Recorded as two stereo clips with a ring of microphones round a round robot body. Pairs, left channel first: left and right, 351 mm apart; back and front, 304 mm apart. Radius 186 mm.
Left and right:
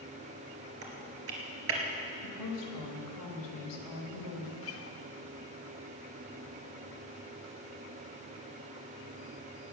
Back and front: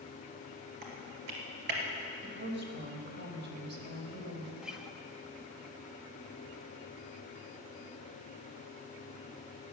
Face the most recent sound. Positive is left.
turn(degrees=85)